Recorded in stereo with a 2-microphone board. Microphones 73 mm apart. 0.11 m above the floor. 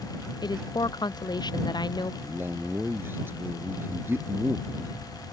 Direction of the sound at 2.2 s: 30° right (ahead or behind).